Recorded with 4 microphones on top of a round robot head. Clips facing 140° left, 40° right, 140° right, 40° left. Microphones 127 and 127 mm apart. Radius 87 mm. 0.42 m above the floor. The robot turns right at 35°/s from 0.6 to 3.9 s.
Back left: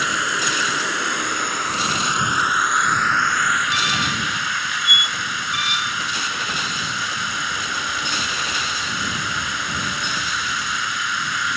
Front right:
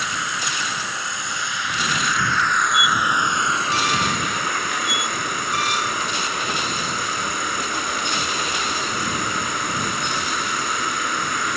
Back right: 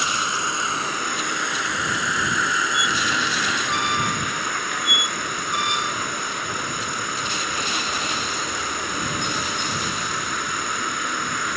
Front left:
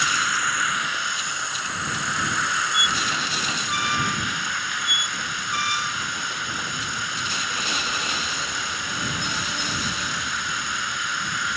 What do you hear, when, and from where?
0.0 s an insect: 155° left; by 11.6 s 90° right
2.7 s a squeak: 115° right; by 5.9 s 75° right